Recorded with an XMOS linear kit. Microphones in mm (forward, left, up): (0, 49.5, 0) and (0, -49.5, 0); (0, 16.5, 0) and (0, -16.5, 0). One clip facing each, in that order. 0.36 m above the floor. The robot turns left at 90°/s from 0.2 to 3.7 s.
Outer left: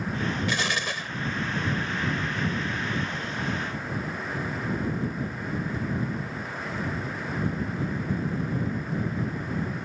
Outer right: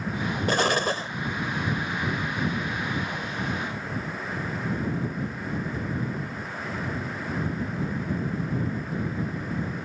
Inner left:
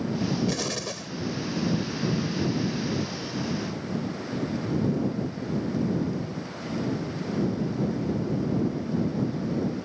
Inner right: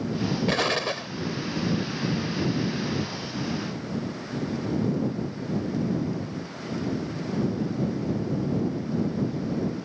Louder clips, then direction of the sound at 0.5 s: Outer right 5 dB, inner right 5 dB; 80° right.